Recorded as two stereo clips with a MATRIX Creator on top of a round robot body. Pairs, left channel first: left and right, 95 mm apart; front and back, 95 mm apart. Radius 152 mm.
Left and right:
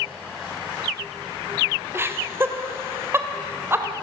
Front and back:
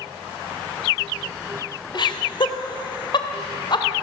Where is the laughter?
30° right, 2.5 m.